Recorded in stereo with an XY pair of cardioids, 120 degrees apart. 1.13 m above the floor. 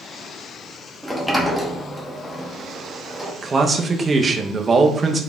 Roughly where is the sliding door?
Ahead.